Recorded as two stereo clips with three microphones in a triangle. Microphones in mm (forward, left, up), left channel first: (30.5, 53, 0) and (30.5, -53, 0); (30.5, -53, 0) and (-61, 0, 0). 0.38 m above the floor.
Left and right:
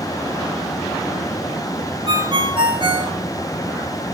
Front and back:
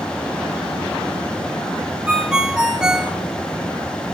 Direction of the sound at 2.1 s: 130° right.